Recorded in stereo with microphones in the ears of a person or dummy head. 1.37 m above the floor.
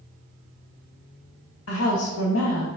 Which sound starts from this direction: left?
A woman speaking, at 1.7 s.